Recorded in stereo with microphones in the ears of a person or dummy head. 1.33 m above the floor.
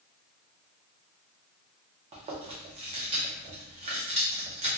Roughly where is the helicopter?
No helicopter in this recording.